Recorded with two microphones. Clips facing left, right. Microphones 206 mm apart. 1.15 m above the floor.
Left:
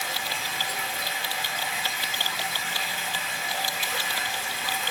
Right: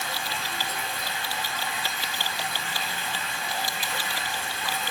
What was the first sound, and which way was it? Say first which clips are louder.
Running water: right 1 dB; 10° left (ahead or behind).